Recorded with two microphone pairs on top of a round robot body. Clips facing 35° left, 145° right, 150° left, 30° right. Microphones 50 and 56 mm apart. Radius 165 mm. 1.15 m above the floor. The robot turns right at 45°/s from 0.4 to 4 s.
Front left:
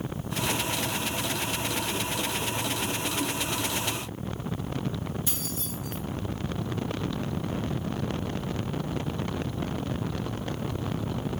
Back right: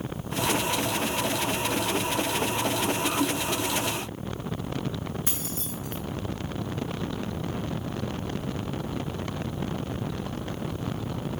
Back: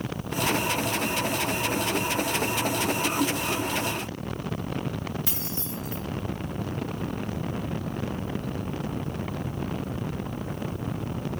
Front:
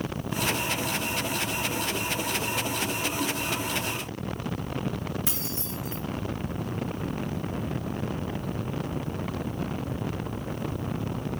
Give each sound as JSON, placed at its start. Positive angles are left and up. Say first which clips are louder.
{"t": 5.3, "sound": "keys jangling", "louder": "back right 1 dB, even", "azimuth_deg": -90, "distance_m": 0.9}